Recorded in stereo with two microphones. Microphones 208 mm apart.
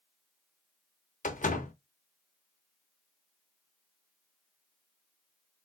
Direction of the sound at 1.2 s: 40° left (ahead or behind).